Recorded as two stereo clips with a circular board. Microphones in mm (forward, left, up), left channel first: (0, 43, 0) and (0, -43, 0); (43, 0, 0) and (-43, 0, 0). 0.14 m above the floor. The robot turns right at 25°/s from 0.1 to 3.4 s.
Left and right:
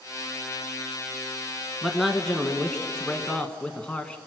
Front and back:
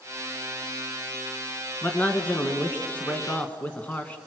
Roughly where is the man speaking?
Ahead.